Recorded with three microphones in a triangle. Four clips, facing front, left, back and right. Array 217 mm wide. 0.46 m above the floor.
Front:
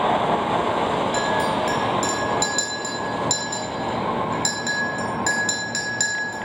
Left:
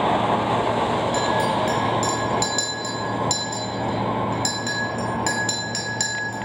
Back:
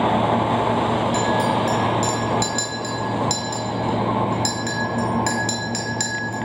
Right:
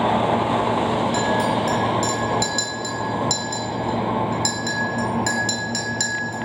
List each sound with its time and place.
1.1 s a clink: 80° left, 1.9 m